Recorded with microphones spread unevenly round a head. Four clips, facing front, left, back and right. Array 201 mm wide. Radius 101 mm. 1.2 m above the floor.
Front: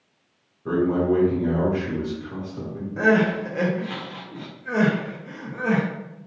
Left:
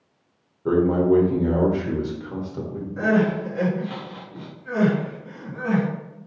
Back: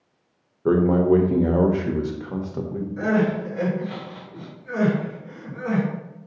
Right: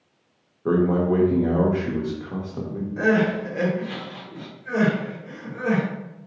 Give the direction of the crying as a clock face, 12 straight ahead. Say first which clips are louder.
Even, front 3 dB; 12 o'clock.